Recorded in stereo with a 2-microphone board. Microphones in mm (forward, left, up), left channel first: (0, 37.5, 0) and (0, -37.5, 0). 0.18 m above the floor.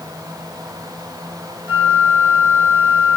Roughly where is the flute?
Right.